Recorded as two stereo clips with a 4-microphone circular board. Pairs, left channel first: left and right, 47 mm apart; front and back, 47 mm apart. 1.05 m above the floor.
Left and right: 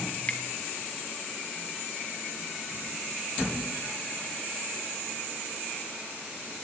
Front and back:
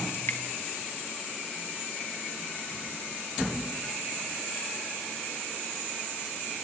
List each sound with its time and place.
0.1 s dripping: 30° left, 1.9 m